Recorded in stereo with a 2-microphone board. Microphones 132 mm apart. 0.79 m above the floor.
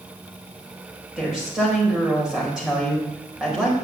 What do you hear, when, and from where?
1.2 s a woman speaking: 5° right (ahead or behind), 4.5 m